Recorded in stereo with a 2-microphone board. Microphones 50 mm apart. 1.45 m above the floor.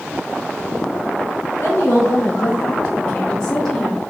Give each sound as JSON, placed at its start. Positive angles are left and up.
{"t": 1.6, "sound": "a woman speaking", "side_deg": 70, "distance_m": 1.6}